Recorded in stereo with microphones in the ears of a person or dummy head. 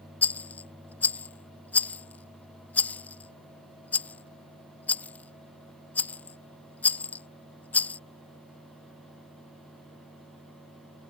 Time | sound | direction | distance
0.2 | a rattle | 10° left (ahead or behind) | ?